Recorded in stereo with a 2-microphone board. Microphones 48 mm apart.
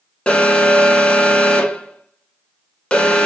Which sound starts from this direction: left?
An alarm, at 0.3 s.